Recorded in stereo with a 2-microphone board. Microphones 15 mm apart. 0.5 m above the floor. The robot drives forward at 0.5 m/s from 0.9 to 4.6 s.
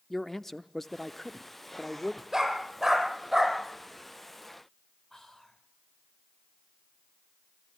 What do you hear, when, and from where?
0.1 s a man speaking: 20° left (ahead or behind), 0.7 m; by 2.2 s 15° left (ahead or behind), 1.1 m
2.3 s a dog barking: 15° right (ahead or behind), 4 m
5.1 s whispering: 30° left (ahead or behind), 1.9 m